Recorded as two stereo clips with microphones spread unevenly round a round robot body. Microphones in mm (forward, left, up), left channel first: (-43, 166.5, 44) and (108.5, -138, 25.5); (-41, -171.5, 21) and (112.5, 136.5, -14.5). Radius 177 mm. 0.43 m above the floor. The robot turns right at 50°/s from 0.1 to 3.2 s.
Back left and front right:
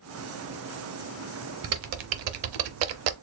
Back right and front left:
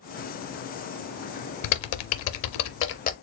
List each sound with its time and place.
1.6 s typing on a keyboard: 120° right, 0.6 m; by 3.1 s 45° right, 0.6 m